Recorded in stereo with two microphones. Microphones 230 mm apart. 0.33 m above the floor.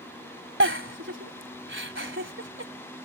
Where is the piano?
I don't hear a piano.